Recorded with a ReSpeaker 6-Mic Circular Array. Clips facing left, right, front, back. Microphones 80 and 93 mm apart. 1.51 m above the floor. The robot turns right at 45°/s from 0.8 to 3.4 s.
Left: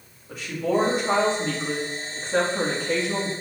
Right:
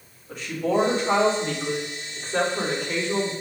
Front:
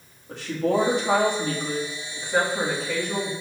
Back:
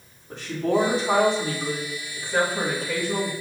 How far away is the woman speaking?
About 3 m.